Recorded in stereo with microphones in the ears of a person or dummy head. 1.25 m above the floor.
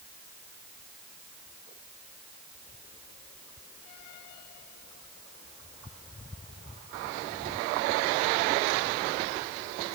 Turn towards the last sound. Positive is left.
No sound to turn to.